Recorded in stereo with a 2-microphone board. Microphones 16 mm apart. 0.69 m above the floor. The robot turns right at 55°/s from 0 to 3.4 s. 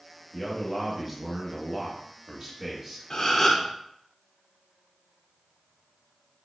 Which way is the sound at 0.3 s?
10° left (ahead or behind).